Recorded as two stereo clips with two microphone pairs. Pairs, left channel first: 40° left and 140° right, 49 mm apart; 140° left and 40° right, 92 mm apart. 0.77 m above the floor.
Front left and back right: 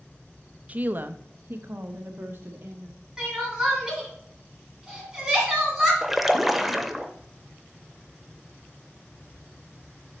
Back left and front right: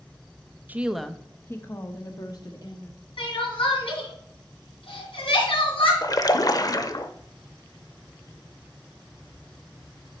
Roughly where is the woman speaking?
Right.